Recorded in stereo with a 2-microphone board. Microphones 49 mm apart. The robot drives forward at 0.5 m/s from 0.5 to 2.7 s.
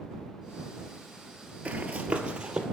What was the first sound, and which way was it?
Running footsteps, 30° right (ahead or behind).